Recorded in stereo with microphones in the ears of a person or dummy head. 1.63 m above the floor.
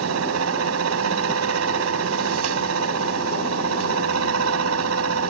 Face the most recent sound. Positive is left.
turn(degrees=-80)